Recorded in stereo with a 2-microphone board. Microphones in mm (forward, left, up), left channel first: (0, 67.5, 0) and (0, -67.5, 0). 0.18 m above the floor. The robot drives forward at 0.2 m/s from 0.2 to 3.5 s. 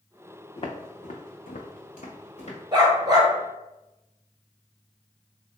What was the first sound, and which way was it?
Footsteps, 40° left (ahead or behind).